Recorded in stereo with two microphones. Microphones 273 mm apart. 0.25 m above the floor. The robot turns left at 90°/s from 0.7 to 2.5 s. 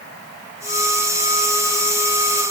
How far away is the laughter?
No laughter in this recording.